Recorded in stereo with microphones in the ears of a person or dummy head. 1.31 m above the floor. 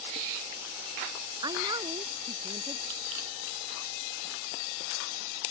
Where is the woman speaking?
20° right (ahead or behind).